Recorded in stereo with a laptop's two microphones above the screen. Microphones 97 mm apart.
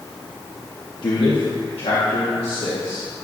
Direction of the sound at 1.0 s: 55° left (ahead or behind).